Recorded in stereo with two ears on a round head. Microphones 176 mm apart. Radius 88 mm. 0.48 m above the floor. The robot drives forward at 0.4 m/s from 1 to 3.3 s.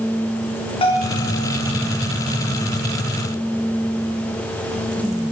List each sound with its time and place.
0.8 s a bell: 30° left (ahead or behind), 4 m